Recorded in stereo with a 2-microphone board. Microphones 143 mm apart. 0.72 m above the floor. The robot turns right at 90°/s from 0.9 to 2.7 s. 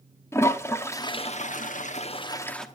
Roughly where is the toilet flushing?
Ahead.